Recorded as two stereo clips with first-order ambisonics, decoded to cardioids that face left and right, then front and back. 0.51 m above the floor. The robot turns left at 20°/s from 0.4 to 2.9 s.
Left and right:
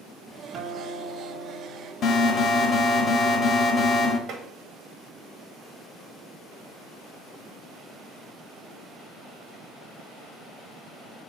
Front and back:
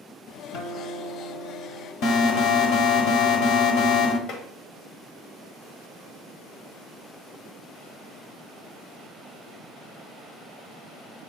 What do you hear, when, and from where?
0.5 s a guitar: 25° right, 1.8 m; by 1.9 s 50° right, 1.8 m
2.0 s an alarm: 35° left, 1.5 m; by 4.2 s 15° left, 1.5 m
4.3 s tapping: 40° right, 1.9 m